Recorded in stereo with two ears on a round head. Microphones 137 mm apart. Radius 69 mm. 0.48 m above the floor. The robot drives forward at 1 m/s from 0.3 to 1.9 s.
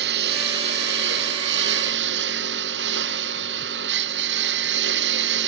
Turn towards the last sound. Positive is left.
turn(degrees=-85)